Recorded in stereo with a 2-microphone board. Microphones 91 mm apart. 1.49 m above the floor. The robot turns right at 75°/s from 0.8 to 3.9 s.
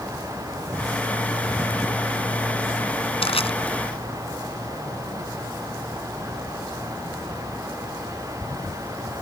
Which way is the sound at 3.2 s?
80° left.